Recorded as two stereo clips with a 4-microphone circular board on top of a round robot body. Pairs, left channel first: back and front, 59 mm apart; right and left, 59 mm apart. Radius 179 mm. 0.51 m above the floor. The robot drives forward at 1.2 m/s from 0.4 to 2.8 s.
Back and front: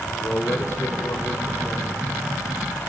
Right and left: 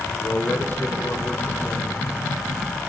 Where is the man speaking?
135° right, 2.5 m; by 2.1 s 155° right, 4 m.